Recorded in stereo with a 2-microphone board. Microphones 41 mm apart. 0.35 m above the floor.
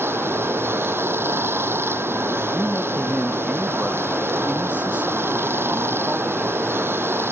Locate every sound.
0.0 s running water: 80° right
2.5 s a man speaking: 35° right (ahead or behind)